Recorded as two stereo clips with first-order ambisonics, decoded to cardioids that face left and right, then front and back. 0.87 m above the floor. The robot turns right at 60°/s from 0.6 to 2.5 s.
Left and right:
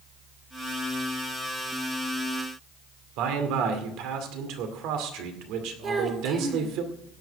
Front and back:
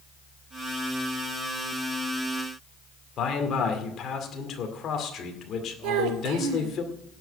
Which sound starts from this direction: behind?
A child speaking, at 5.8 s.